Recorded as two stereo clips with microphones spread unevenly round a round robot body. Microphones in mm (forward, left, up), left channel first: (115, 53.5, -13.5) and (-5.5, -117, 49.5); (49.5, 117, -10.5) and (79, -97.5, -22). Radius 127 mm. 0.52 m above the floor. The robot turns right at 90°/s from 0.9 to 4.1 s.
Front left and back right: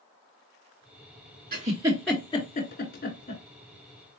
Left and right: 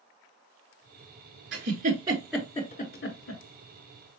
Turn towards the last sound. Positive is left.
turn(degrees=160)